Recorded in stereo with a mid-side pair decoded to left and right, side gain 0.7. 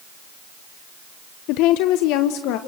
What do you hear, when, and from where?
1.5 s a woman speaking: 65° left, 0.6 m; by 2.6 s 70° left, 1.3 m